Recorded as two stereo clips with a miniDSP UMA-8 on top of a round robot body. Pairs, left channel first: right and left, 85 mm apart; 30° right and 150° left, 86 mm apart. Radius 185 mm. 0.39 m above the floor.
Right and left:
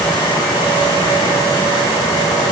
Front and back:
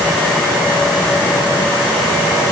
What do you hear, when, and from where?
Only background noise.